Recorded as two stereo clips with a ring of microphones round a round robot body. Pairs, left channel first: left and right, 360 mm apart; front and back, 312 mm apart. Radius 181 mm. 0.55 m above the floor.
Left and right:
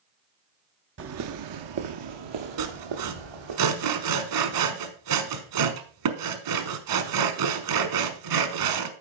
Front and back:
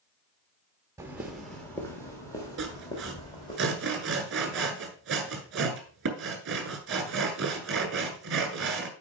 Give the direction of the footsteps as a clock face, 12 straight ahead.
4 o'clock.